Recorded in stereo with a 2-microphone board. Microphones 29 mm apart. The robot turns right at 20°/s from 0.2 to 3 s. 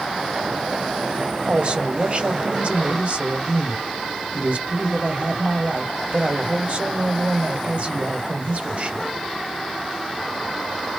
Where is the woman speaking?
120° right, 1.3 m; by 9.1 s 90° right, 1.3 m.